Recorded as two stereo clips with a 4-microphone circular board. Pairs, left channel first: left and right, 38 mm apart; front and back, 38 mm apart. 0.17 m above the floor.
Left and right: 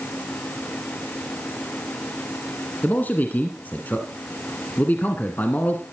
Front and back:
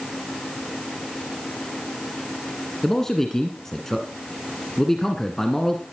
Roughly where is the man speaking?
Left.